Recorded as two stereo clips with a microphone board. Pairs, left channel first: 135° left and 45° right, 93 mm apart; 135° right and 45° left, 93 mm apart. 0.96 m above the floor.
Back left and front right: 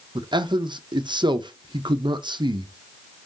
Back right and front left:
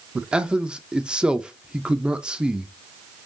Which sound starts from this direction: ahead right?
A man speaking, at 0.1 s.